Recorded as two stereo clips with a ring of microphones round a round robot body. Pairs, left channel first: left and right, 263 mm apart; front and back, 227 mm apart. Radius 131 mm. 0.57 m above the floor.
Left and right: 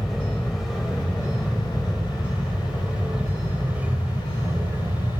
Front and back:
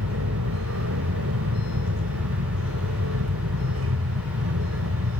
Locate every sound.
0.0 s an aircraft: straight behind; by 5.2 s 170° right